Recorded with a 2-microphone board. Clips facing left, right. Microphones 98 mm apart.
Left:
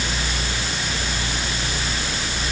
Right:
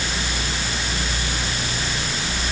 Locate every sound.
Only background noise.